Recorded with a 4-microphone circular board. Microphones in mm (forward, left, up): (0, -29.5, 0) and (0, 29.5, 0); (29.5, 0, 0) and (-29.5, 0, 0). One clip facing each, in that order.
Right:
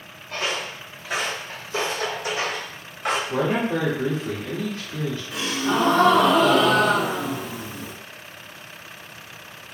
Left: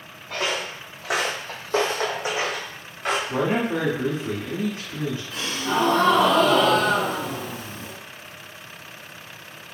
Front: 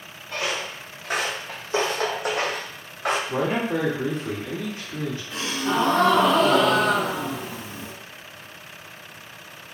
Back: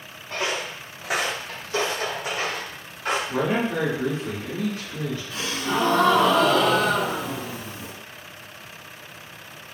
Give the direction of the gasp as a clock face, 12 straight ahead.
1 o'clock.